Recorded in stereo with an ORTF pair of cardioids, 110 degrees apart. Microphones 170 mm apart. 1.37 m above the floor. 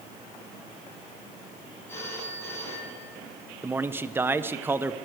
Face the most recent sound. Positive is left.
turn(degrees=-10)